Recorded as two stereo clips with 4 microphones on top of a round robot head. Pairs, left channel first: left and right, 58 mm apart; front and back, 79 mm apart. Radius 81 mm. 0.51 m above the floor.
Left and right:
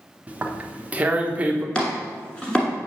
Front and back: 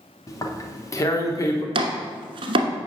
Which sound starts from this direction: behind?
Chopping, at 1.8 s.